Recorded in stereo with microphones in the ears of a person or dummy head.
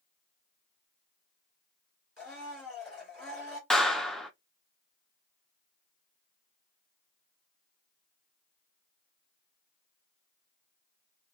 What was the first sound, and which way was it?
A blender, 5° right (ahead or behind).